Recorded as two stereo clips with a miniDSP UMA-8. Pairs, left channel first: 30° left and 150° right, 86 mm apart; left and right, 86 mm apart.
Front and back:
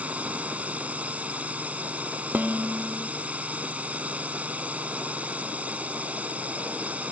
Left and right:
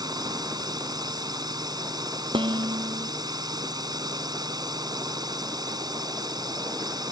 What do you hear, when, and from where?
0.0 s a drone: 80° right
2.3 s dishes clattering: 80° right